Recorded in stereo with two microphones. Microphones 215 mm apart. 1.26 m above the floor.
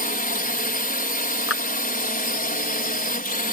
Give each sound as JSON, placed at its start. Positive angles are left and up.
{"t": 0.0, "sound": "a drone", "side_deg": 45}
{"t": 1.5, "sound": "a clap", "side_deg": 85}